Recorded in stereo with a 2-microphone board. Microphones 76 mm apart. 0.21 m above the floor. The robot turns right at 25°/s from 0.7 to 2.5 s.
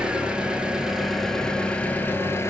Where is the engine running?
10° right, 0.8 m; by 2.5 s 35° left, 0.8 m.